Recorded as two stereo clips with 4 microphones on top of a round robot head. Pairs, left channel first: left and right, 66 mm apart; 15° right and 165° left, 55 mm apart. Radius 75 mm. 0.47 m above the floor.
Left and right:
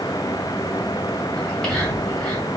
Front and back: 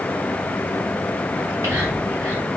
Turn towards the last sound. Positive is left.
turn(degrees=170)